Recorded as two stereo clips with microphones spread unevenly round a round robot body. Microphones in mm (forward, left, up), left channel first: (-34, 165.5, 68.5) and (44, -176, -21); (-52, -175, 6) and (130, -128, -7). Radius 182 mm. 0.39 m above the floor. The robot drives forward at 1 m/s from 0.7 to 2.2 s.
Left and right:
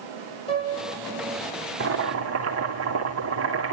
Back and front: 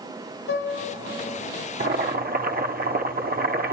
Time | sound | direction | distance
0.5 | a piano | straight behind | 4.5 m
1.8 | boiling | 20° right | 3 m